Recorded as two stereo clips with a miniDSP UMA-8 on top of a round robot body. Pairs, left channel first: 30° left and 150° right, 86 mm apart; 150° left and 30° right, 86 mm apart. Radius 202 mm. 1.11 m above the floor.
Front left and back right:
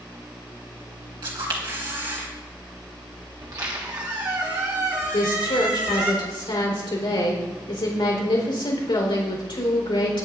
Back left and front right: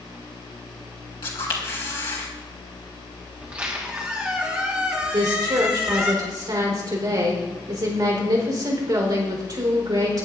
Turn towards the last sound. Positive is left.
turn(degrees=10)